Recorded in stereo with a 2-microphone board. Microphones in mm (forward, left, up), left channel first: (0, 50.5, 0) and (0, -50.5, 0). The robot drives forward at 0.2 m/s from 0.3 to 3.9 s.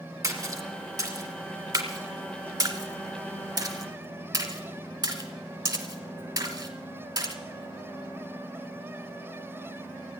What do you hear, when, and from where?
0.2 s a splash: 35° right (ahead or behind), 2 m; by 7.4 s 45° right (ahead or behind), 1.7 m